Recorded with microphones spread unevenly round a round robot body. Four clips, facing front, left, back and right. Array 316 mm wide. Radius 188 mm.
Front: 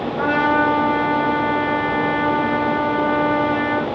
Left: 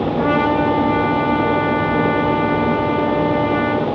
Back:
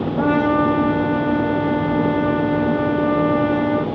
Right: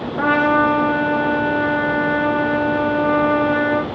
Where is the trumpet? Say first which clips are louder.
Right 2 dB, back 1 dB; 175° right, 0.8 m.